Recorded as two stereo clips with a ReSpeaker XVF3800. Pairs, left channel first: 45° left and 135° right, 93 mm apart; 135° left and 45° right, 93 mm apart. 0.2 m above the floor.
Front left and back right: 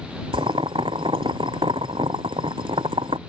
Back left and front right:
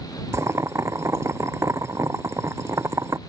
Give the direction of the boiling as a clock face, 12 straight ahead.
4 o'clock.